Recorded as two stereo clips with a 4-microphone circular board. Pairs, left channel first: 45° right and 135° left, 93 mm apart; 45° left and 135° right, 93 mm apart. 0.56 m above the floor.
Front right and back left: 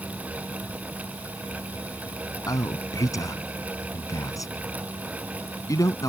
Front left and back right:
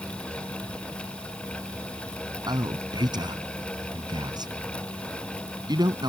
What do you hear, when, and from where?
2.5 s a man speaking: 95° right